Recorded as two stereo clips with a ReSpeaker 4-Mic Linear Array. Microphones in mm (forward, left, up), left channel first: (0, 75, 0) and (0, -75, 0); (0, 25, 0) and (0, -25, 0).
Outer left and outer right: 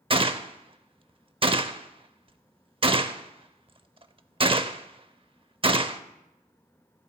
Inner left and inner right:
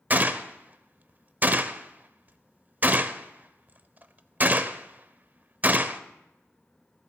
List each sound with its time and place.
0.1 s a gunshot: 35° right (ahead or behind), 0.5 m